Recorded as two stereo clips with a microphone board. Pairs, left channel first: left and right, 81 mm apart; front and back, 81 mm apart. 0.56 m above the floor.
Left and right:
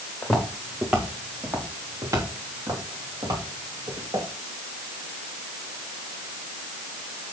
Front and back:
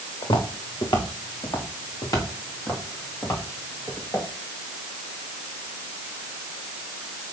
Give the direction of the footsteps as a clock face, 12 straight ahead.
12 o'clock.